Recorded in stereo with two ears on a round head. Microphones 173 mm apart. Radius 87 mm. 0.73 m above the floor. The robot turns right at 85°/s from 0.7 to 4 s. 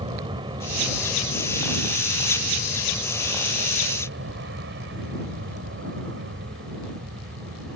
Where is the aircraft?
25° right; by 7.8 s 105° right.